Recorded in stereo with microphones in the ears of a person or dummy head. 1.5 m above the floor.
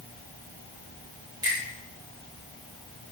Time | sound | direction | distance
1.4 | a finger snap | 20° right (ahead or behind) | 2.5 m